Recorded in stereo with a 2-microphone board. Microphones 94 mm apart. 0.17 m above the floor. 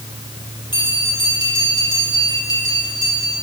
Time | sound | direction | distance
0.7 | a bell | 50° left (ahead or behind) | 5 m